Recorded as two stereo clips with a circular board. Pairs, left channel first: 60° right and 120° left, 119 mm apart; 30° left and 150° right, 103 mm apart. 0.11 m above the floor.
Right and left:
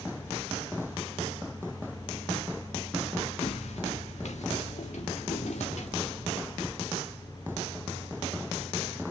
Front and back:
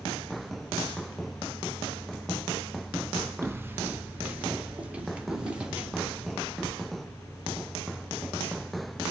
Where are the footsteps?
85° right, 0.8 m; by 6.4 s 70° right, 2.5 m.